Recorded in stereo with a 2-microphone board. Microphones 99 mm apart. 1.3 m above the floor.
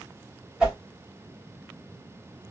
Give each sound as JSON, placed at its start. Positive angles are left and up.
{"t": 0.6, "sound": "a whoosh", "side_deg": -5, "distance_m": 1.8}